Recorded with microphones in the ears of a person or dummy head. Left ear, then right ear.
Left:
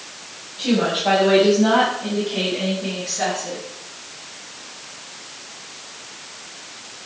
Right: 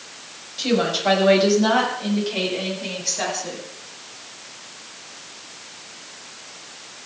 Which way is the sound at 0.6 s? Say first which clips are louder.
Even; 85° right.